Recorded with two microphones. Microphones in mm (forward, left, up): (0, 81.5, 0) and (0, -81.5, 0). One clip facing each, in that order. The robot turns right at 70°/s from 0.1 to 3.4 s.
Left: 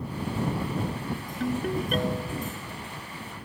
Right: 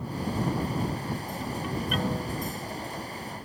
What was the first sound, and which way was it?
A ringtone, 105° left.